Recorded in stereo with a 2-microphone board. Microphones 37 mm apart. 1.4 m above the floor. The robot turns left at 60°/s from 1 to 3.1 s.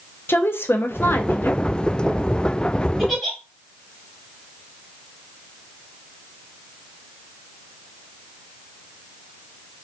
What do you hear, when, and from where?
0.3 s a woman speaking: 100° left, 0.5 m; by 1.6 s 60° left, 0.5 m
3.0 s a giggle: centre (ahead or behind), 1.2 m